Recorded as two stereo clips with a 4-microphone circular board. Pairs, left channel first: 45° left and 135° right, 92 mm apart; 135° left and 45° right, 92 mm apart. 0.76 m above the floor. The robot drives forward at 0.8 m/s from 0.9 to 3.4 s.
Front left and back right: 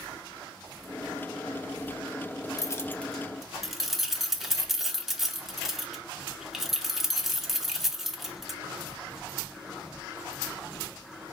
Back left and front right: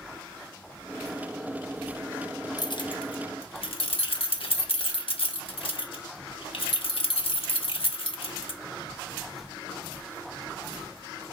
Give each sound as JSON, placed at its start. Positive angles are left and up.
{"t": 2.6, "sound": "keys jangling", "azimuth_deg": 95, "distance_m": 0.6}